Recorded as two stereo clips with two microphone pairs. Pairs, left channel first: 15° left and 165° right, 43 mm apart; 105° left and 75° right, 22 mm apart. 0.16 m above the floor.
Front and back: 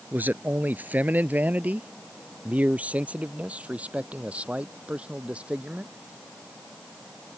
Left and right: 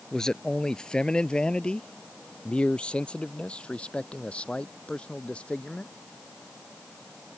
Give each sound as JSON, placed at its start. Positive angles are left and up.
{"t": 0.1, "sound": "a man speaking", "azimuth_deg": 160}